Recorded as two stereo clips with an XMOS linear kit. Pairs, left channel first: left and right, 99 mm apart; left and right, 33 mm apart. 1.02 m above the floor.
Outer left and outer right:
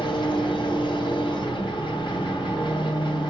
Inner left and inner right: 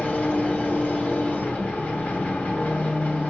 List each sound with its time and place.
0.0 s an engine running: 55° left (ahead or behind), 2.5 m